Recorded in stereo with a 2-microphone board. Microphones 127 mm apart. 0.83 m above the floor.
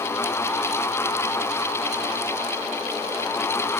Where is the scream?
No scream in this recording.